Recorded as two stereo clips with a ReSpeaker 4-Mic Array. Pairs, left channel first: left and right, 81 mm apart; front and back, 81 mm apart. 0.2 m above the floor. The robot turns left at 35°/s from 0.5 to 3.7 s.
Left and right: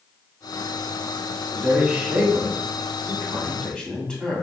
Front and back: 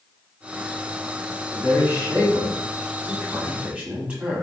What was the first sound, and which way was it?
A man speaking, 135° right.